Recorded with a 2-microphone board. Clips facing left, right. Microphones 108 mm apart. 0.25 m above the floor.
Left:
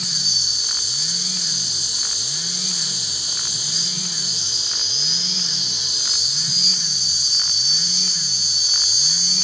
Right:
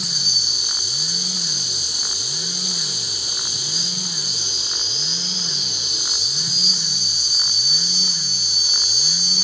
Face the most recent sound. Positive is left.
turn(degrees=-55)  # may be behind; listen again after turning